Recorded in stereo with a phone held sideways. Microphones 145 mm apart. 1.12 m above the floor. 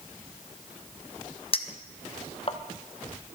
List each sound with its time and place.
1.5 s a clink: 40° left (ahead or behind), 0.7 m